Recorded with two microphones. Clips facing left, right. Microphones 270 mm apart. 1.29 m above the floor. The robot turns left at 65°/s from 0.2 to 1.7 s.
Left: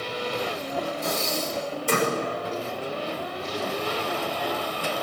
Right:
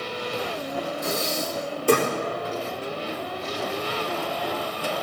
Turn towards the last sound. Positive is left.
turn(degrees=-70)